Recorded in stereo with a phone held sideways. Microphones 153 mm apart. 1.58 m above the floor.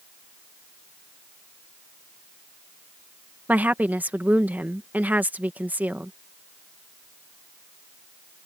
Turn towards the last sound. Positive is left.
turn(degrees=-10)  # may be behind; listen again after turning